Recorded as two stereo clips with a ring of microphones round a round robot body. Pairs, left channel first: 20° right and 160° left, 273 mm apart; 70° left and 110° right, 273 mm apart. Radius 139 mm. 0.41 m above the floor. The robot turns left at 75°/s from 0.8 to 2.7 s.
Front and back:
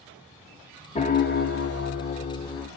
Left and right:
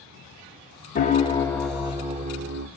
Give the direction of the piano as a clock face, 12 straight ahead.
11 o'clock.